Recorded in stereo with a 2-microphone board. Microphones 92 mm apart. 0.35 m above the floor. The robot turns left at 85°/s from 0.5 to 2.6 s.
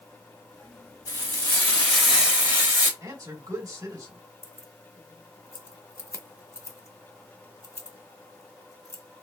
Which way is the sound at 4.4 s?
35° left (ahead or behind).